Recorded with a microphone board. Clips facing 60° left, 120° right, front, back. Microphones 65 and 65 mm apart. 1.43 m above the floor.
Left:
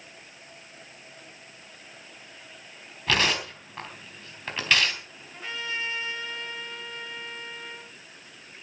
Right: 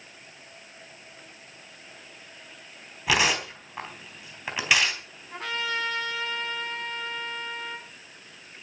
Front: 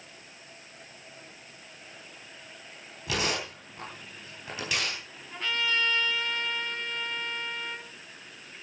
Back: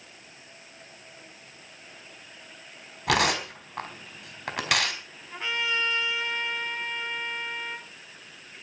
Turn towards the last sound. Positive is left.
turn(degrees=-110)